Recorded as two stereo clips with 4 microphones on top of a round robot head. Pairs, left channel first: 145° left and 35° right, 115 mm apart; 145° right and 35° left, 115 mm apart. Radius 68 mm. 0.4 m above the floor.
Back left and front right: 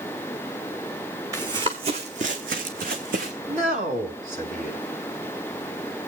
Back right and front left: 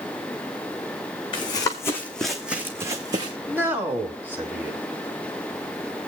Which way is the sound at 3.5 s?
40° right.